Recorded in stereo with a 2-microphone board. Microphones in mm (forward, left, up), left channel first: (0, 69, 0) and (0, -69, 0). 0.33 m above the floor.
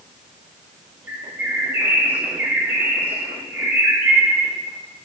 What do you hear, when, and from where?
1.1 s a bird: 15° right (ahead or behind), 1.3 m